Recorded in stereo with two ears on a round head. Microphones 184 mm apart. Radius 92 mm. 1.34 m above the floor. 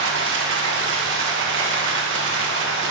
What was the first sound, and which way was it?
Running water, 60° right (ahead or behind).